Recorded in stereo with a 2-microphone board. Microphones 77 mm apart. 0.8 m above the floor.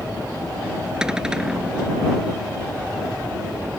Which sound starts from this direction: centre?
A cupboard door, at 1.0 s.